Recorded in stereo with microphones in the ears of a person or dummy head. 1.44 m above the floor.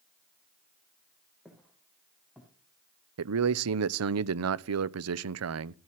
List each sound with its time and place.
1.4 s footsteps: centre (ahead or behind), 4 m
3.2 s a man speaking: 80° right, 0.7 m